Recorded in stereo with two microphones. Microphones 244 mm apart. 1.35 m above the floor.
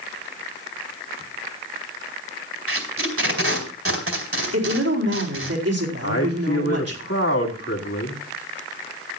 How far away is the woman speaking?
About 4 m.